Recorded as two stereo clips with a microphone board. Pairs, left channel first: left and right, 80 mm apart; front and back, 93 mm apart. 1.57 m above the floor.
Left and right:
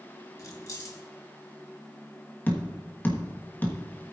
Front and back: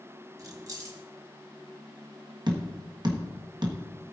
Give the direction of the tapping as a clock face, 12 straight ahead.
7 o'clock.